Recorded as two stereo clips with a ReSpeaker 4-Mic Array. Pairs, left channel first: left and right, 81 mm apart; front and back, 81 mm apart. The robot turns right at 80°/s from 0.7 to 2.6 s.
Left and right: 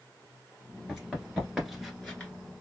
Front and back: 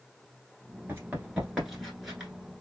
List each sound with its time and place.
0.9 s running footsteps: 175° left, 1.5 m; by 2.3 s 110° left, 1.4 m